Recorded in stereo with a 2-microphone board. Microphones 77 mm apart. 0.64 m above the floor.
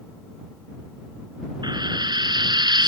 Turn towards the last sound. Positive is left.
turn(degrees=-70)  # may be behind; listen again after turning